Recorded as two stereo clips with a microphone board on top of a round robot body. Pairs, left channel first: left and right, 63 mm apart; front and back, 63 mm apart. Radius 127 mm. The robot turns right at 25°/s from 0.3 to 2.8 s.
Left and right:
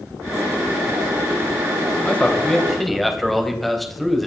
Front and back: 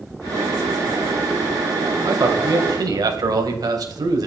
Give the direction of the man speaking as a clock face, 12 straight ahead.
7 o'clock.